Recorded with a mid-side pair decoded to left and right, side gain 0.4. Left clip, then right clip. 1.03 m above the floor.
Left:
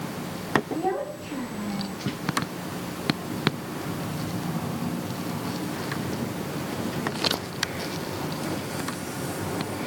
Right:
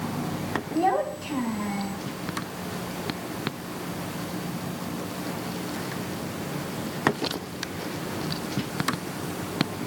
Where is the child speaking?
65° right, 7 m.